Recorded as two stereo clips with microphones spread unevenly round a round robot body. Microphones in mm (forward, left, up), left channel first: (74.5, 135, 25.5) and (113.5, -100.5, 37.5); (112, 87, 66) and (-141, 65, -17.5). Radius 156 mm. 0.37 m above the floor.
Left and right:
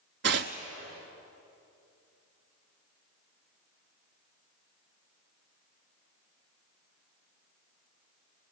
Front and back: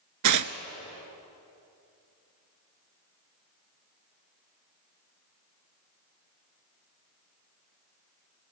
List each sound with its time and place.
0.2 s tearing paper: 135° right, 0.7 m